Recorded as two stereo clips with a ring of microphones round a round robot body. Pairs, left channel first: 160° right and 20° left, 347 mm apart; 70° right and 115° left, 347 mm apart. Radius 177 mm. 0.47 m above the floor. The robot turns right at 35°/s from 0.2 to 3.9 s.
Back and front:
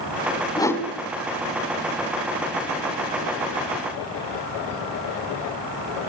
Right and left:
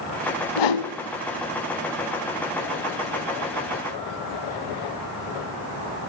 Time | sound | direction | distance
0.6 | a whoosh | 80° right | 2.0 m